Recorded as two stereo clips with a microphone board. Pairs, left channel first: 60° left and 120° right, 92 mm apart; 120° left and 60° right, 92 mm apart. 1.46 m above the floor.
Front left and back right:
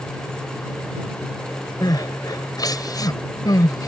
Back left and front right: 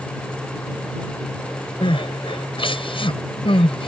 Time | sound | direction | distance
1.8 | crying | 105° left | ?